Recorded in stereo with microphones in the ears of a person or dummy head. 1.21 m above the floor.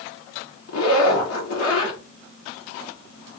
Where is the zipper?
80° left, 2.0 m.